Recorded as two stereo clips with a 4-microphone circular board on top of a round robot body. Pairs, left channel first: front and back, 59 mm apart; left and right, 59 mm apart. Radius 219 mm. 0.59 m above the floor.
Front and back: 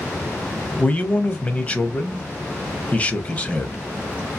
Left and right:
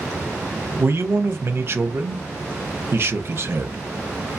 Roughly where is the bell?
I don't hear a bell.